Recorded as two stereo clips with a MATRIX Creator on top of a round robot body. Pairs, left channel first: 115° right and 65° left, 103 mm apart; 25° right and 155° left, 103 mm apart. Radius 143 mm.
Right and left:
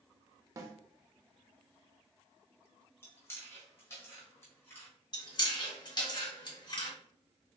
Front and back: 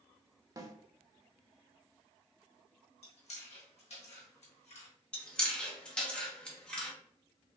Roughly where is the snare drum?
Behind left.